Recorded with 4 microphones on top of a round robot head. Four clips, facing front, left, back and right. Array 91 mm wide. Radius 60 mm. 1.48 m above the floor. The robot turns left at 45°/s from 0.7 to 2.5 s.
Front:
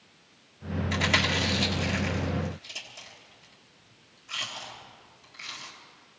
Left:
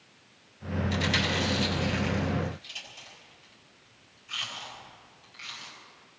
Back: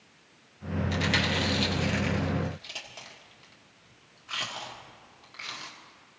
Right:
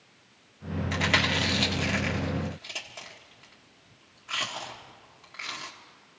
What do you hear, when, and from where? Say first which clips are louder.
0.9 s chewing: right 3 dB, front 2 dB; 45° right, 1.7 m; by 5.7 s 120° right, 1.7 m